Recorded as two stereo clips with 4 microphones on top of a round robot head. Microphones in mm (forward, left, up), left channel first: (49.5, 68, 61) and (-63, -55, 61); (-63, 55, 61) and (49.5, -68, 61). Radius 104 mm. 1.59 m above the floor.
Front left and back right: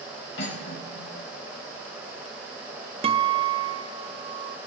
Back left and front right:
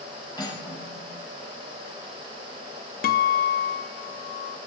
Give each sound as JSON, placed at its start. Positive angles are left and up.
{"t": 0.4, "sound": "cutlery clinking", "azimuth_deg": 65, "distance_m": 6.0}
{"t": 3.0, "sound": "a guitar", "azimuth_deg": 170, "distance_m": 0.6}